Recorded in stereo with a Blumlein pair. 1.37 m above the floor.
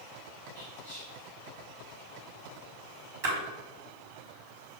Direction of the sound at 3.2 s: 50° right.